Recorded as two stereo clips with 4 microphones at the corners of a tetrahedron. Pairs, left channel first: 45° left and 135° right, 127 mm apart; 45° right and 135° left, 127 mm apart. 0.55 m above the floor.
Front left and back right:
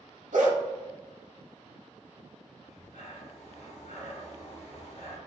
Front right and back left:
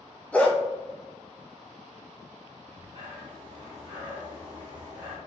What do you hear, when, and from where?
0.3 s a dog barking: 125° right, 0.9 m
2.6 s breathing: 75° left, 1.2 m